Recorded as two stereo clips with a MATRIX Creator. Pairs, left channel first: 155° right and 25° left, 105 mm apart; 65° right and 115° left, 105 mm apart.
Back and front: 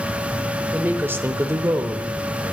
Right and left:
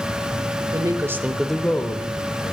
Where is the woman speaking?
90° left, 1.0 m; by 2.5 s 40° right, 1.3 m.